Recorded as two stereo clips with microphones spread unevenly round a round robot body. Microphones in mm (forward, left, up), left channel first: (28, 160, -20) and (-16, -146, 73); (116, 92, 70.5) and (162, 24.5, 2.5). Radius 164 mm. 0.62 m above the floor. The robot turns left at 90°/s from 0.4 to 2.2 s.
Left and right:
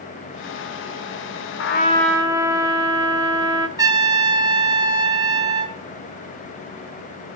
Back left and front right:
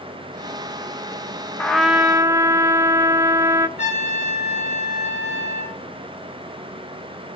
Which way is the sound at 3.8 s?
Straight behind.